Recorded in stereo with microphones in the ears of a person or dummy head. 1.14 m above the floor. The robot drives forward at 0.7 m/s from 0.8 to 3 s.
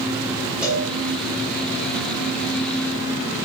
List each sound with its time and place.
0.6 s a cowbell: 5° right (ahead or behind), 1.2 m